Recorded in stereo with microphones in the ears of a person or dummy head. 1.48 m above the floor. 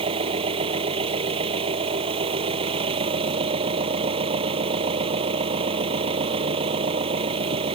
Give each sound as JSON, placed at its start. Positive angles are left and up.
{"t": 0.0, "sound": "an engine running", "side_deg": -30}